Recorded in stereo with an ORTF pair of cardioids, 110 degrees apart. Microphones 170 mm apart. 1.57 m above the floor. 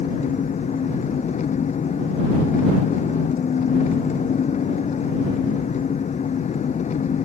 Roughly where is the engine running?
Ahead left.